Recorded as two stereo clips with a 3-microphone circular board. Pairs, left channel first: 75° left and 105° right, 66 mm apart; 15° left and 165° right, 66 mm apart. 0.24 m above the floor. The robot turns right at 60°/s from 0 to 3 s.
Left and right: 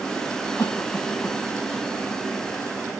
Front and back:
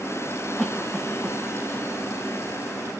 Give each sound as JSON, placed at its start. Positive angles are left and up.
{"t": 0.6, "sound": "a cough", "azimuth_deg": 100, "distance_m": 2.5}